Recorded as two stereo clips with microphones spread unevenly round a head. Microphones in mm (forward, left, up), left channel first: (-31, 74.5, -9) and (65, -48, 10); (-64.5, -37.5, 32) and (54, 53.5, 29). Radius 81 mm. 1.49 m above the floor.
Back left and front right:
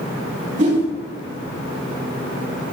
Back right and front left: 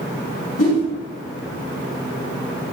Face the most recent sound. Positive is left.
turn(degrees=-105)